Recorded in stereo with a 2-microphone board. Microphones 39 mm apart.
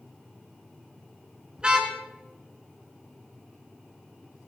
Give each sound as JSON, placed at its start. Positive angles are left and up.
{"t": 1.6, "sound": "a car horn", "side_deg": -25, "distance_m": 2.5}